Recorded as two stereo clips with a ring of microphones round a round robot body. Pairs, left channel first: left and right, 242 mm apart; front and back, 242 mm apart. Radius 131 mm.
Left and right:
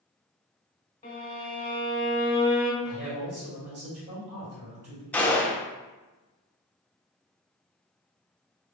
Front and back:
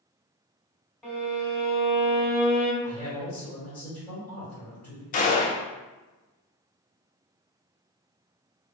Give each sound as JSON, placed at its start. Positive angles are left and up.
{"t": 1.0, "sound": "a violin", "azimuth_deg": 85, "distance_m": 1.2}
{"t": 2.8, "sound": "a man speaking", "azimuth_deg": -90, "distance_m": 1.7}
{"t": 5.1, "sound": "a gunshot", "azimuth_deg": 10, "distance_m": 0.5}